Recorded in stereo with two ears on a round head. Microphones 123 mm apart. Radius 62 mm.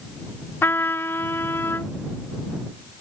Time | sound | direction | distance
0.6 | a trumpet | 15° left (ahead or behind) | ?